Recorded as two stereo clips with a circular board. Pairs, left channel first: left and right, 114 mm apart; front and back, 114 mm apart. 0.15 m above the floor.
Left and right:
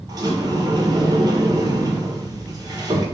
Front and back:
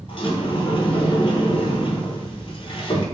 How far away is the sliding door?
About 0.6 m.